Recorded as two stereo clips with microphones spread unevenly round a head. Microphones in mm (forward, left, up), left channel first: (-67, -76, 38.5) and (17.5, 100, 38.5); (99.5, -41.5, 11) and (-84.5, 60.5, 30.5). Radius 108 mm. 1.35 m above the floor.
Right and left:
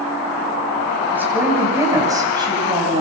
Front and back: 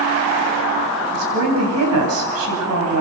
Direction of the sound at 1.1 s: 145° left.